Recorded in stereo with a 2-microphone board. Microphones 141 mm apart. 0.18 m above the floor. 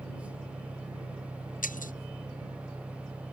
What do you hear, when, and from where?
0.0 s an engine running: 15° right (ahead or behind)
1.6 s breaking glass: 70° left (ahead or behind)